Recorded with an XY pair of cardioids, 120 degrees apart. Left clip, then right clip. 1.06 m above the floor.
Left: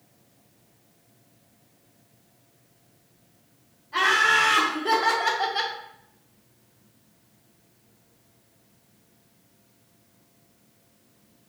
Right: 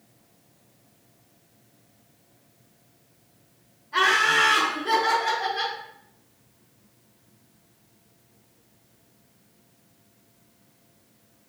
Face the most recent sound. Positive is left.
turn(degrees=80)